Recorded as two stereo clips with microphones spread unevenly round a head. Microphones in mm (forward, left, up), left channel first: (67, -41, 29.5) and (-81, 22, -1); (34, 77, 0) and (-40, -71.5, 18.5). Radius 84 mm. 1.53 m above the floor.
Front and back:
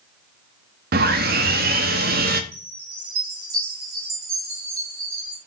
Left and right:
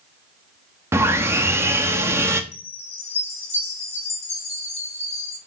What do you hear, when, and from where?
0.9 s sawing: straight behind, 1.2 m
2.5 s a chime: 120° left, 5.5 m